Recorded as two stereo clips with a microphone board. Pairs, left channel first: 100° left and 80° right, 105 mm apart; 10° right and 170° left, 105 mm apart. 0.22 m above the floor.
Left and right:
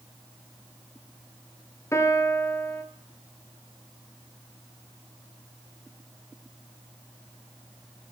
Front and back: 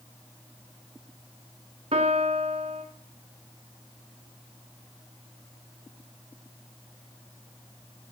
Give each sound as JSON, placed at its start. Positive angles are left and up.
{"t": 1.9, "sound": "a piano", "azimuth_deg": 160, "distance_m": 0.8}